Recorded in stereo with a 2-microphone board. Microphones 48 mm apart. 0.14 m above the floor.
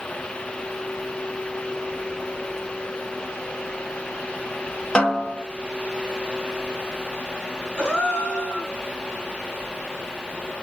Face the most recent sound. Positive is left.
turn(degrees=20)  # may be behind; listen again after turning